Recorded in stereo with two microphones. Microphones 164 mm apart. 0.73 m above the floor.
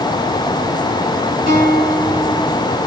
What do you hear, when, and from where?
1.5 s a guitar: 65° left (ahead or behind), 6 m